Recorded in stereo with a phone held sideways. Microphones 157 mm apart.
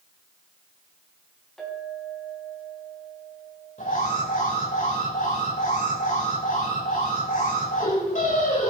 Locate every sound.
1.6 s a clink: centre (ahead or behind), 5 m
3.8 s an alarm: 55° left (ahead or behind), 5 m